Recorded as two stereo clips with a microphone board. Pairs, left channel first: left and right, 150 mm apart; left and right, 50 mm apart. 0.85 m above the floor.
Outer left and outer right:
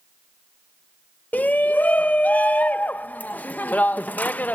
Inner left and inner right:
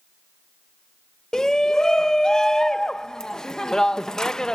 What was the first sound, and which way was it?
A shout, 10° left (ahead or behind).